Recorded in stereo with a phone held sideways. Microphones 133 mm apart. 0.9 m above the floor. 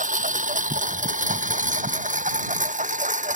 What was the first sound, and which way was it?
A lawn mower, 75° right (ahead or behind).